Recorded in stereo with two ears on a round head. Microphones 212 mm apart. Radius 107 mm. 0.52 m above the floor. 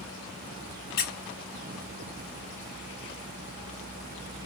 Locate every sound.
1.0 s a squeak: 40° left (ahead or behind), 0.7 m